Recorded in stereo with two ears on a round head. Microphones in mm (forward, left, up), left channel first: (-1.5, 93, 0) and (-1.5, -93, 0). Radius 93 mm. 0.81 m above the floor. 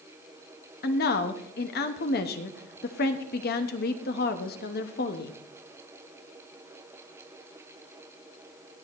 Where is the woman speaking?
50° left (ahead or behind), 1.0 m.